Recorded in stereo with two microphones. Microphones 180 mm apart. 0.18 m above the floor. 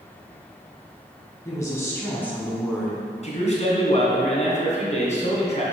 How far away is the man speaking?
About 2 m.